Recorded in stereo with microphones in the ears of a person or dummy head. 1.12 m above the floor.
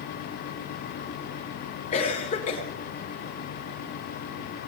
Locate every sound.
1.9 s a cough: 40° left (ahead or behind), 4 m